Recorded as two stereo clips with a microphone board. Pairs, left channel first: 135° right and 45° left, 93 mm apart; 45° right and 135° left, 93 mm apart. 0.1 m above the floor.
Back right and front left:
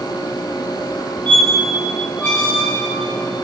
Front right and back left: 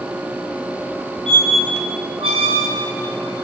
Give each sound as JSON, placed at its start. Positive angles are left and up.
{"t": 1.3, "sound": "a squeak", "azimuth_deg": 150, "distance_m": 3.0}